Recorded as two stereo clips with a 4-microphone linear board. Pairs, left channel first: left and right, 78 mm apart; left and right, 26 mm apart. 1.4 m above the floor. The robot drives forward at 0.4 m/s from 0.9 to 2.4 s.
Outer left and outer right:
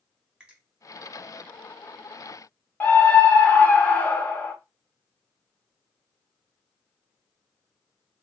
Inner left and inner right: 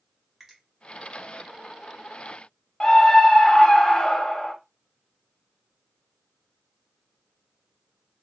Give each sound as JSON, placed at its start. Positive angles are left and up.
{"t": 0.4, "sound": "a finger snap", "side_deg": -15, "distance_m": 1.2}
{"t": 2.8, "sound": "a scream", "side_deg": 25, "distance_m": 0.8}